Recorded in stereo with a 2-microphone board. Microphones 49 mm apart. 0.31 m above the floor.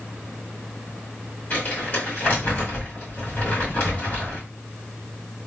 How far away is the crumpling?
About 2.5 m.